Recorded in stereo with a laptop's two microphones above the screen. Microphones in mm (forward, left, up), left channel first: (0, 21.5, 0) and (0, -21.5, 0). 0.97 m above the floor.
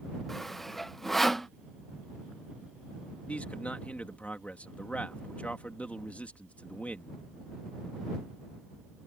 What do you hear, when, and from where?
0.3 s sawing: 5° left (ahead or behind)
3.3 s a man speaking: 35° left (ahead or behind)